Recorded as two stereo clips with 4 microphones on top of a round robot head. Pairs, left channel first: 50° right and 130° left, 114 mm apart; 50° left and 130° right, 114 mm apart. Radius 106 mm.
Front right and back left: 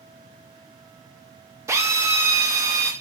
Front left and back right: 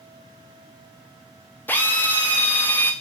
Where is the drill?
105° left, 0.6 m.